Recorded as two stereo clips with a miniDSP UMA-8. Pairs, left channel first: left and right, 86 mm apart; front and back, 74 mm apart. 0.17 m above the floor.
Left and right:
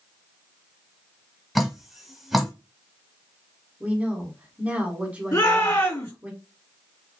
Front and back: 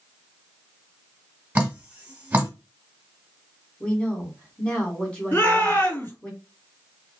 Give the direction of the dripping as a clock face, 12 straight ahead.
6 o'clock.